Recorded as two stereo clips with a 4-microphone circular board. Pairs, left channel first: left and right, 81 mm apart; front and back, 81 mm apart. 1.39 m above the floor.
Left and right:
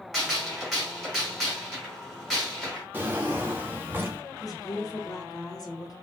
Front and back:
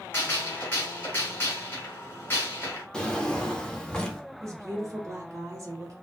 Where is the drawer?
65° right, 0.5 m.